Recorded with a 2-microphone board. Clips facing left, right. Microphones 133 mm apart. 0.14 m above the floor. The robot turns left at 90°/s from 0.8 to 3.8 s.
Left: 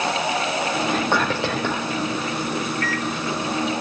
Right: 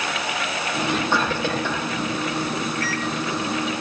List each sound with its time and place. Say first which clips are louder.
0.9 s whispering: right 1 dB; 140° left, 7 m; by 1.9 s 55° left, 7 m
2.8 s a microwave: left 1 dB; 35° right (ahead or behind), 3 m; by 3.1 s 50° right (ahead or behind), 3 m